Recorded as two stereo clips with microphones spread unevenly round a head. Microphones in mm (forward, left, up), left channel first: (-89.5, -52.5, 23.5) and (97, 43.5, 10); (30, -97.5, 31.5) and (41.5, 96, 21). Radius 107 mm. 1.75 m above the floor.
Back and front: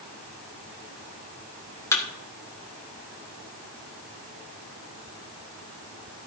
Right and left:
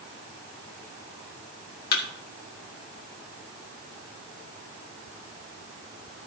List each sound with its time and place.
1.9 s a thud: 85° right, 1.7 m